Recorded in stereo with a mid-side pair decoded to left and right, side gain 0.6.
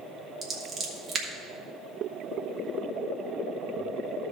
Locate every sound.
0.4 s scissors: 35° right, 2.5 m